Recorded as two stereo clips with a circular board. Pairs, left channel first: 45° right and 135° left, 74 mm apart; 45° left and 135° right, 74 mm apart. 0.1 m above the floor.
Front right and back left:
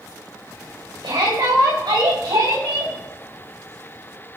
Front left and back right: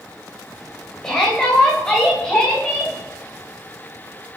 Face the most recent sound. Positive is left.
turn(degrees=120)